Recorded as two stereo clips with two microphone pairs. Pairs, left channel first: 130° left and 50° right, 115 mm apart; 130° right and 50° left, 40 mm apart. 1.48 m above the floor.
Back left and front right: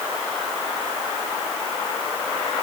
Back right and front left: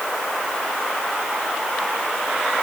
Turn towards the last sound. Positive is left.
No sound to turn to.